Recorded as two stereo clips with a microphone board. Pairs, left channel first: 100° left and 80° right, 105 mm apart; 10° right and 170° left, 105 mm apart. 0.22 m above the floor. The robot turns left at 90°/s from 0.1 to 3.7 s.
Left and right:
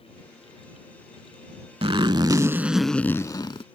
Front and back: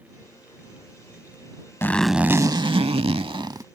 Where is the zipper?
80° right; by 3.6 s 115° left.